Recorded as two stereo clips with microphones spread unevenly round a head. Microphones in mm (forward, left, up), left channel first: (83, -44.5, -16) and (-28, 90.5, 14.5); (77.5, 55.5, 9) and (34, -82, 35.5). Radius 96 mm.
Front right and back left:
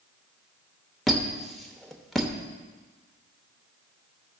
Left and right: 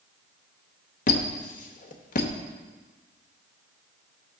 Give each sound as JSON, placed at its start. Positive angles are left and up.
{"t": 1.1, "sound": "a squeak", "azimuth_deg": 45, "distance_m": 0.9}